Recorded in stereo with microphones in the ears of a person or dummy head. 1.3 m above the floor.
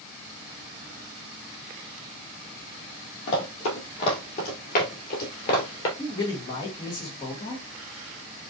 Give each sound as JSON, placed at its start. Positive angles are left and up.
{"t": 3.3, "sound": "running footsteps", "side_deg": 30, "distance_m": 2.0}
{"t": 6.0, "sound": "a man speaking", "side_deg": 20, "distance_m": 1.5}